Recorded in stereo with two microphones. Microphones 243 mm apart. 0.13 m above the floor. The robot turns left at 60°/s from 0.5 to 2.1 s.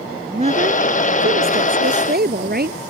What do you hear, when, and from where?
0.3 s a woman speaking: 35° right; by 2.8 s 130° right